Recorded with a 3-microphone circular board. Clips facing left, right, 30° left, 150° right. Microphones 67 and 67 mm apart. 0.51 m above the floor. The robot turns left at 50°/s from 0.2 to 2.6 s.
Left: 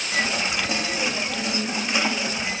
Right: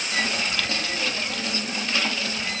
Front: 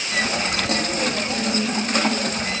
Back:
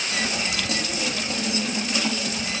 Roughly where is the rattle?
I don't hear a rattle.